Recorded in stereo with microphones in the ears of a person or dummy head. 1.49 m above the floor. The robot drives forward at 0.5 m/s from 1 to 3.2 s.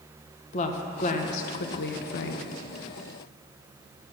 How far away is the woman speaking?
About 1.0 m.